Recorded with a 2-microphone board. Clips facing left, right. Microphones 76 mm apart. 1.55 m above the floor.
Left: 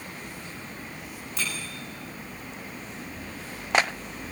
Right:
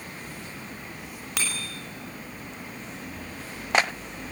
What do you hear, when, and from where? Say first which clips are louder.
1.4 s a bicycle bell: right 1 dB; 80° right, 6 m